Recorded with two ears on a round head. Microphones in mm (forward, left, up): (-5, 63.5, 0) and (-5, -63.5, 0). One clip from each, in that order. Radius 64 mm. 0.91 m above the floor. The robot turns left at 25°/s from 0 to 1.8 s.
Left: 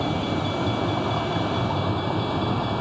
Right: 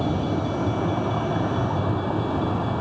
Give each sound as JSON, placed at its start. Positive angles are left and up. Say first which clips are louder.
{"t": 0.0, "sound": "a vehicle", "louder": "even", "side_deg": 50}